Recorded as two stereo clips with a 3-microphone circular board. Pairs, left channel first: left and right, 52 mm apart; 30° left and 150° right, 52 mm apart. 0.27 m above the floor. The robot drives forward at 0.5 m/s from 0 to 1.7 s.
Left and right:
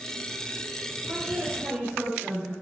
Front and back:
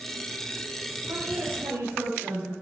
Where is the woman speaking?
150° right, 6.5 m.